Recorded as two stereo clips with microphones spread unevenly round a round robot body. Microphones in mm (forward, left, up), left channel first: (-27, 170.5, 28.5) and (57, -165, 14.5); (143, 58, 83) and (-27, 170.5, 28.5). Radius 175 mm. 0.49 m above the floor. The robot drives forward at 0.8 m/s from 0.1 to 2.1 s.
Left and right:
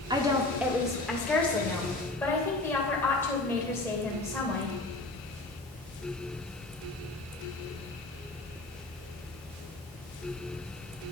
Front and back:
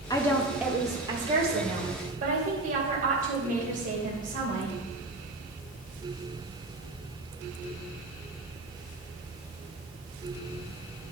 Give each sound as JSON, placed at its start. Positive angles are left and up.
{"t": 0.1, "sound": "a woman speaking", "azimuth_deg": -120, "distance_m": 0.9}